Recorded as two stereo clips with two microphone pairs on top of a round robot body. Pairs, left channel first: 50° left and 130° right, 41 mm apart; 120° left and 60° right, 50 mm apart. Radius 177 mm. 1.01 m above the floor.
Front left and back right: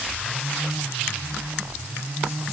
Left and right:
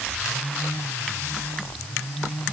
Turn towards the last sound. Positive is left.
No sound to turn to.